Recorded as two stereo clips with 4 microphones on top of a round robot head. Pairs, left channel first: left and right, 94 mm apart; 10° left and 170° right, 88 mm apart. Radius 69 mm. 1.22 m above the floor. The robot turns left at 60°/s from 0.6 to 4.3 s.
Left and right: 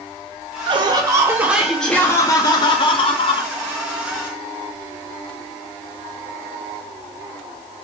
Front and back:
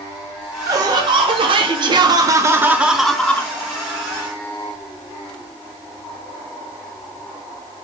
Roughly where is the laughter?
Behind right.